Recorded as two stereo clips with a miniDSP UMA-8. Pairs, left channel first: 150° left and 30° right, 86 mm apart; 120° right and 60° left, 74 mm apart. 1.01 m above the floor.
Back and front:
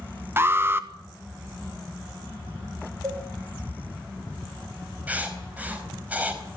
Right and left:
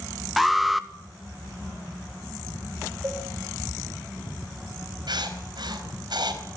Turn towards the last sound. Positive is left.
turn(degrees=45)